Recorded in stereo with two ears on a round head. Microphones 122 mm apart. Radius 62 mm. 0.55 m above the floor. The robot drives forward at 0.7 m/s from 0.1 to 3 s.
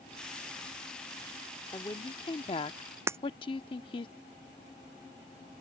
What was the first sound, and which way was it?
A woman speaking, 25° left (ahead or behind).